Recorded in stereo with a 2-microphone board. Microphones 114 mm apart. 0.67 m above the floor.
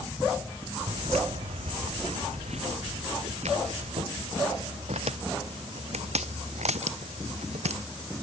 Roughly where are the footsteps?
Right.